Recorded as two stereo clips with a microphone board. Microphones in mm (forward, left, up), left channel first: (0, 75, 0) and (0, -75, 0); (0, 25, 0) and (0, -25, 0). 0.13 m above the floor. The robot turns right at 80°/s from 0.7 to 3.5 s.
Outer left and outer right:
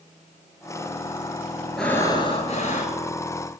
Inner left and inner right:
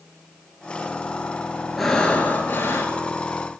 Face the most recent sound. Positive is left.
turn(degrees=140)